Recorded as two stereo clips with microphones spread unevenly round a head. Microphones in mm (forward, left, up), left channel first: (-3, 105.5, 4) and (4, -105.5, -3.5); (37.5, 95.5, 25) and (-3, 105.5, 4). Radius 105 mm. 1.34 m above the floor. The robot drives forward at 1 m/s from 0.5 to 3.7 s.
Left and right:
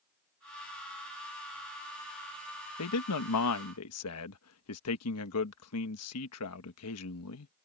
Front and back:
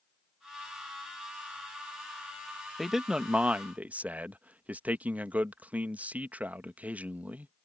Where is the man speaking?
75° left; by 7.5 s 110° left.